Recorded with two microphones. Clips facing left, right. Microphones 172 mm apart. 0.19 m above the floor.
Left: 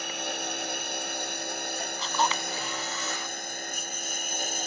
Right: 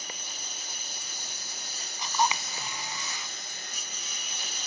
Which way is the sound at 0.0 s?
65° left (ahead or behind).